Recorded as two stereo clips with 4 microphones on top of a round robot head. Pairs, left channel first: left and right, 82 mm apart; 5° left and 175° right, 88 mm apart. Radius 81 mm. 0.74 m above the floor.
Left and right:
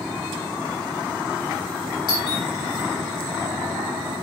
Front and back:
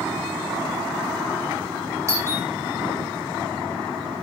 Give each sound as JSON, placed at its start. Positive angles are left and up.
{"t": 2.1, "sound": "a doorbell", "azimuth_deg": 130, "distance_m": 5.5}